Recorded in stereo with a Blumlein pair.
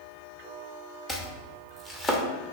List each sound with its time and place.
1.1 s chopping: 10° left, 1.3 m